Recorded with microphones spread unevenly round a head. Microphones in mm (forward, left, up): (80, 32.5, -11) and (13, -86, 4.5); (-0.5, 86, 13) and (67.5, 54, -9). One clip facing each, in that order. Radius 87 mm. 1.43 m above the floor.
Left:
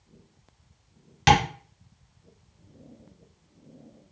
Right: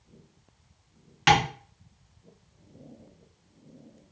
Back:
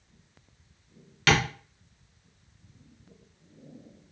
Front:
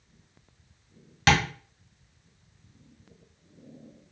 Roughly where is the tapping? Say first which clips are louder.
Left 2 dB, front 1 dB; ahead left.